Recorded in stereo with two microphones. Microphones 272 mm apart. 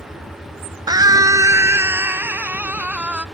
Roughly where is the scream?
Centre.